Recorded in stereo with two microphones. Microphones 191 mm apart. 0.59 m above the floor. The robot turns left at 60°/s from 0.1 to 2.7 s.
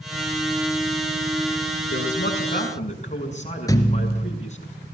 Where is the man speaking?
85° left, 5.5 m; by 4.7 s 35° left, 5.5 m.